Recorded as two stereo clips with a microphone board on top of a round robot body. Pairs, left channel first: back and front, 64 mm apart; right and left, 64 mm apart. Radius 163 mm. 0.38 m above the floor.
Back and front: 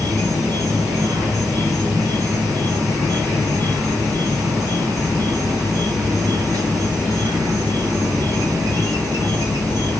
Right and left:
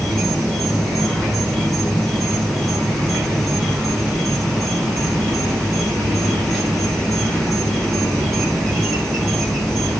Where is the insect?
Straight ahead, 3 m.